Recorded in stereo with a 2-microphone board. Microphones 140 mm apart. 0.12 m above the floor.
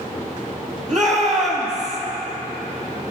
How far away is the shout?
About 3.5 m.